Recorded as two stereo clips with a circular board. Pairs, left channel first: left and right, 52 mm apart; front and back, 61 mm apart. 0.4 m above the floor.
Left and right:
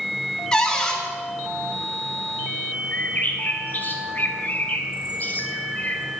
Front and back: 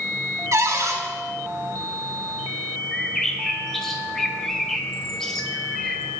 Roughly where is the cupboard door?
Behind.